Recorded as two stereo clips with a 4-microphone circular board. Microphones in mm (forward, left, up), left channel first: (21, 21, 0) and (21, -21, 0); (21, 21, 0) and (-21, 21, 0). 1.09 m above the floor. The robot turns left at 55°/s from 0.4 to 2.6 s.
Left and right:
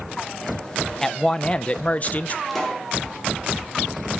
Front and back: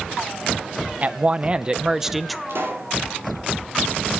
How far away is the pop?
About 3.5 m.